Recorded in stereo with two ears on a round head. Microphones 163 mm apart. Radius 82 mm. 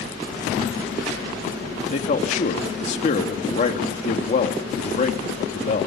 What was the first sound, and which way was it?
A man speaking, 40° left (ahead or behind).